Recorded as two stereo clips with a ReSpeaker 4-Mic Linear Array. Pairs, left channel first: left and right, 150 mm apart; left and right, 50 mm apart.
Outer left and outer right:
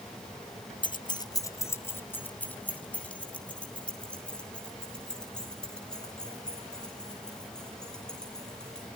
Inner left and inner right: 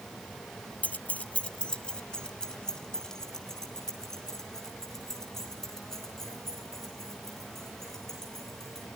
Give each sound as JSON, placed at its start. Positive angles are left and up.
{"t": 0.8, "sound": "keys jangling", "side_deg": 30, "distance_m": 0.5}